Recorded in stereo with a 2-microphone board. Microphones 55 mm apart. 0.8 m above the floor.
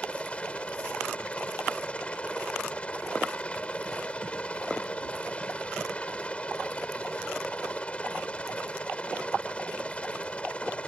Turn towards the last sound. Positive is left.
turn(degrees=20)  # may be behind; listen again after turning